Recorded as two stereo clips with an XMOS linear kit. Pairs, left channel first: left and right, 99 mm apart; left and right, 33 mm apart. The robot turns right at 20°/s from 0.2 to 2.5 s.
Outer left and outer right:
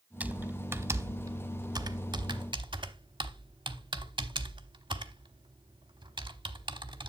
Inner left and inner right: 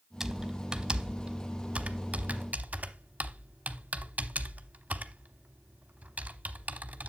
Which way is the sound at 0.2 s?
15° right (ahead or behind).